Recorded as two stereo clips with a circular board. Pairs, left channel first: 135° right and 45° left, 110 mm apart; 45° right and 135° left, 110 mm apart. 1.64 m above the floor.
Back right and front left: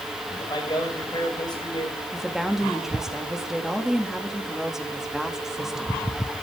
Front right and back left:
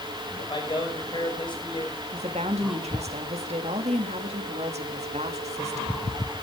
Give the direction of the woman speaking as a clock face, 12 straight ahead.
8 o'clock.